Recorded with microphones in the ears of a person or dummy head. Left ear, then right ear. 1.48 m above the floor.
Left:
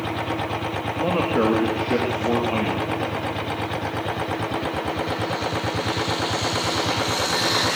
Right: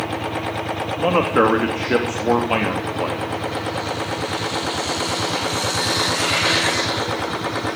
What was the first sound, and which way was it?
A man speaking, 50° right (ahead or behind).